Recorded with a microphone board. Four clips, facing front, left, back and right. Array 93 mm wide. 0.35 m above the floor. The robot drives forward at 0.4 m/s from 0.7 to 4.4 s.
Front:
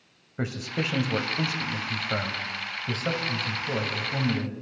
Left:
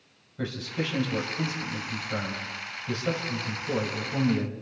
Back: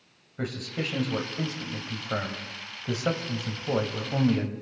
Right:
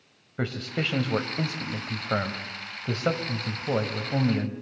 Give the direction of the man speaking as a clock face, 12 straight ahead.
2 o'clock.